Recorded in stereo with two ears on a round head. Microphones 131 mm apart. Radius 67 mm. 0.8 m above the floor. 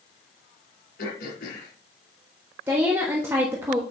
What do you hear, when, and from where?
1.0 s throat clearing: 75° left (ahead or behind), 4 m
2.7 s a woman speaking: 15° right (ahead or behind), 1.2 m